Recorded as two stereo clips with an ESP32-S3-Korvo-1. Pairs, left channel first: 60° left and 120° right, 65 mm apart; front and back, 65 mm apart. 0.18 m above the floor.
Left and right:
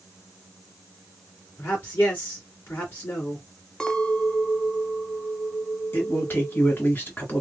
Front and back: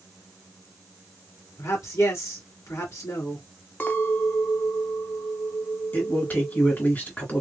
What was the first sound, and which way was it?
A man speaking, 5° left.